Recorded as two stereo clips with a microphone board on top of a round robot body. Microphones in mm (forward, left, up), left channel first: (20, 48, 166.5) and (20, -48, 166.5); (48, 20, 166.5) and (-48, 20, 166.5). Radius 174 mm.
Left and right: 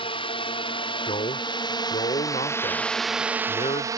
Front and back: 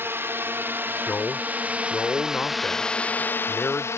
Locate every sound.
0.0 s a drone: 115° left; by 4.0 s 50° right
1.1 s a man speaking: 75° left